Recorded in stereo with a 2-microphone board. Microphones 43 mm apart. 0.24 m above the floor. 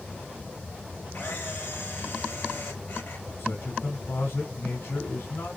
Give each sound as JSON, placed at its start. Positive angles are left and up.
{"t": 1.1, "sound": "a camera shutter", "side_deg": 55, "distance_m": 3.0}
{"t": 3.4, "sound": "a man speaking", "side_deg": 60, "distance_m": 3.5}